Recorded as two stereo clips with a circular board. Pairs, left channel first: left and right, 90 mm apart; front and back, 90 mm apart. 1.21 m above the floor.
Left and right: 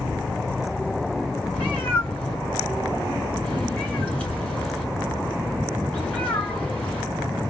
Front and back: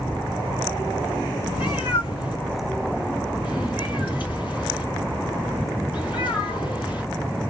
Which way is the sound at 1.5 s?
15° left.